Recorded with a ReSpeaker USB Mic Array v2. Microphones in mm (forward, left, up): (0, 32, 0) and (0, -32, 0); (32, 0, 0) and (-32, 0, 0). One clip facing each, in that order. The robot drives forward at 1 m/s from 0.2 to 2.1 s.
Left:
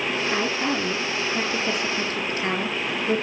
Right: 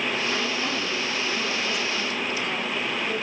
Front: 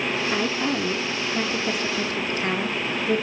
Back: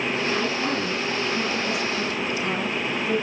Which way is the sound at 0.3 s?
30° left.